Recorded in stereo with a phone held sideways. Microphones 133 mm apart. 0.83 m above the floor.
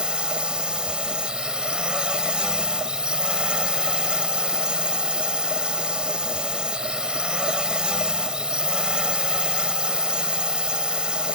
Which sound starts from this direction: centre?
A drone, at 0.0 s.